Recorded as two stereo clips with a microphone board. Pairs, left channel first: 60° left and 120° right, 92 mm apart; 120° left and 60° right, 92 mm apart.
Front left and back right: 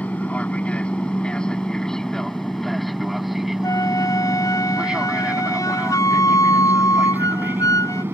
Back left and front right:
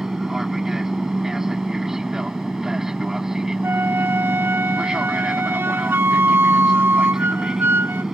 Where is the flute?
5° left.